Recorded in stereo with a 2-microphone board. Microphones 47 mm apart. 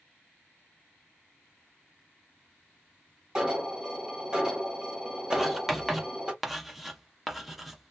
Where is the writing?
5° right (ahead or behind), 0.6 m.